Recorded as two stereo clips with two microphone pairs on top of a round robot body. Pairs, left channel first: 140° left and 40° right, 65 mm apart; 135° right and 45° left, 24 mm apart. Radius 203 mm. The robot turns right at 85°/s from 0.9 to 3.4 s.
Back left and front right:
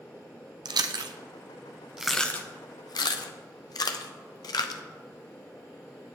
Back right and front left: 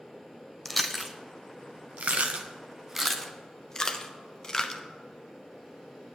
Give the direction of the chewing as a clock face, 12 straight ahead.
2 o'clock.